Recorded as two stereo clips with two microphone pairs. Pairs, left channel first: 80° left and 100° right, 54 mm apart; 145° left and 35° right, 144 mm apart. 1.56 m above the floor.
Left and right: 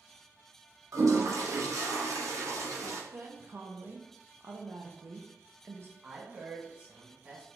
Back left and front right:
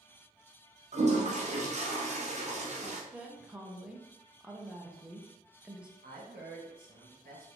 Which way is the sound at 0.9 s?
75° right.